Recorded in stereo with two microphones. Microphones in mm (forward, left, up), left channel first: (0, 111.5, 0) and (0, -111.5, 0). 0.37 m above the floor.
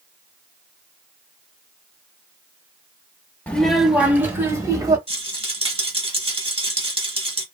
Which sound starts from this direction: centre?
A child speaking, at 3.5 s.